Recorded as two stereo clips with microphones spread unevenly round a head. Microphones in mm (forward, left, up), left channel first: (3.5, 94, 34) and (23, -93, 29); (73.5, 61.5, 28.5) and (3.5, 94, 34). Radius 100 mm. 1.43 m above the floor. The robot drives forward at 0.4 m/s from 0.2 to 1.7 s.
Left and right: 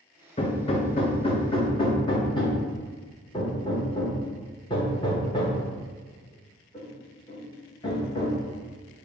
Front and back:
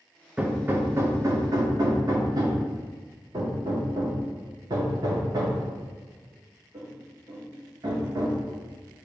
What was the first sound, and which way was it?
Hammering, 105° left.